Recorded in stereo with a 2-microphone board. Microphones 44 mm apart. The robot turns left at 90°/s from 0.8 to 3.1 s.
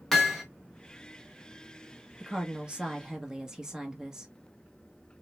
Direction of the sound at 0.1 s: 5° left (ahead or behind).